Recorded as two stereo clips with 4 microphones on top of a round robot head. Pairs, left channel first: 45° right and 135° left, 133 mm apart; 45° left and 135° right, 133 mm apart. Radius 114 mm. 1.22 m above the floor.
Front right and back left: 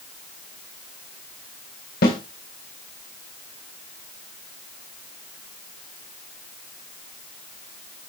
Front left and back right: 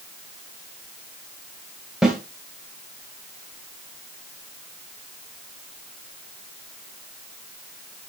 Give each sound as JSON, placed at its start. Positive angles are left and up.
{"t": 2.0, "sound": "a snare drum", "azimuth_deg": -50, "distance_m": 2.5}